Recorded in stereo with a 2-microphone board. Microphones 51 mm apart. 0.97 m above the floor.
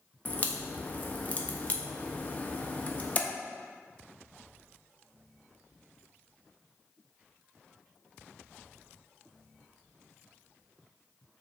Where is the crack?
30° left (ahead or behind), 0.5 m.